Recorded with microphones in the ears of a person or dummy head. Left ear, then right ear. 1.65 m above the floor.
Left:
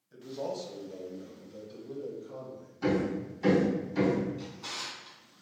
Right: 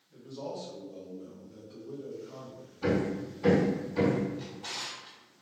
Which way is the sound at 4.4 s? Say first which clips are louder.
Even; 55° left (ahead or behind).